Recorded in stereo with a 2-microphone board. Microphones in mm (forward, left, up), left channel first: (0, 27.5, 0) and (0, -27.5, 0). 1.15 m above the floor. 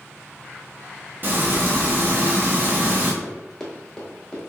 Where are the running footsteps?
Centre (ahead or behind), 1.1 m; by 4.4 s 15° left (ahead or behind), 1.2 m.